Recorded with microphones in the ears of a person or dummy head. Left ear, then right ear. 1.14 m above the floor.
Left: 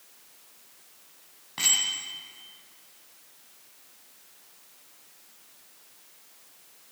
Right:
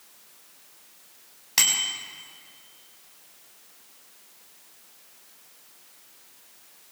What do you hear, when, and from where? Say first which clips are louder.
1.6 s a bicycle bell: right 3 dB; 75° right (ahead or behind), 6 m